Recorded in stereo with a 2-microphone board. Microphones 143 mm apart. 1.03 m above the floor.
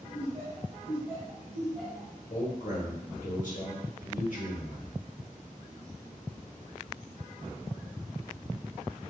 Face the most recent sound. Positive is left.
turn(degrees=60)  # may be behind; listen again after turning